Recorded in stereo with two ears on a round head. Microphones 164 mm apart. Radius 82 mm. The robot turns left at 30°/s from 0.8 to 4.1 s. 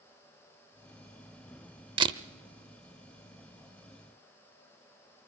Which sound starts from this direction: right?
A camera shutter, at 2.0 s.